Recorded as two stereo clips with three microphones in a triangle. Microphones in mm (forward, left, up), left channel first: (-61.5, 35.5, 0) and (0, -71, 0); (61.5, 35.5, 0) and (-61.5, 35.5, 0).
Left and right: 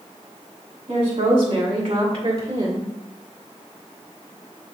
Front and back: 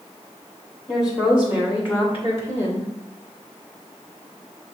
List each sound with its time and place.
0.9 s a woman speaking: 55° right, 2.5 m; by 2.9 s 20° right, 1.9 m